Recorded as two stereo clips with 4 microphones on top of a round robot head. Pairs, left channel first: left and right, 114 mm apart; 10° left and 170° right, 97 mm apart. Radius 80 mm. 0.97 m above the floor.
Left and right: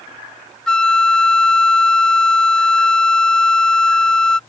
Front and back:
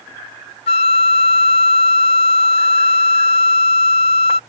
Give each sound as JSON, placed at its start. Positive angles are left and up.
{"t": 0.7, "sound": "a flute", "azimuth_deg": 5}